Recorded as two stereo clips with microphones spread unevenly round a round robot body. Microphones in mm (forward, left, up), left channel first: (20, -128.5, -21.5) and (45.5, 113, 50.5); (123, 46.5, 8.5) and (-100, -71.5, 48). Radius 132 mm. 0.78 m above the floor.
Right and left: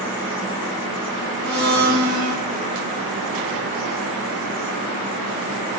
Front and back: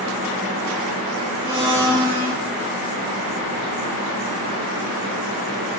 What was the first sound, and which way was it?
A blender, 135° left.